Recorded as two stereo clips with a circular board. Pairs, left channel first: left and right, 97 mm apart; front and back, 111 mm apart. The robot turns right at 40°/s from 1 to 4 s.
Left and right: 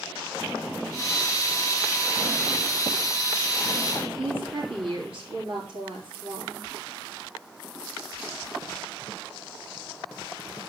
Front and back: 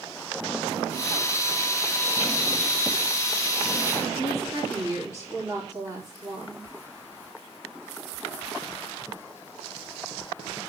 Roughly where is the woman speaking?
Right.